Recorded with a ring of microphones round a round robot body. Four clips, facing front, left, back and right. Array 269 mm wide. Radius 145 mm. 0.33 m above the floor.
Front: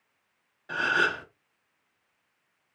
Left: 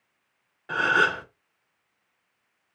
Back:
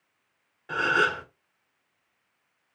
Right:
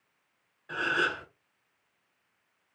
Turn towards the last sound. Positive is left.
turn(degrees=100)